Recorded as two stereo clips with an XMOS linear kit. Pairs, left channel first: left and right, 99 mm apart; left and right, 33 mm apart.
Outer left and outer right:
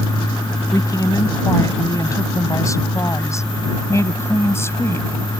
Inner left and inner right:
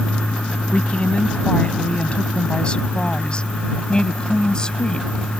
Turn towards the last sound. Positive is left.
turn(degrees=25)  # may be behind; listen again after turning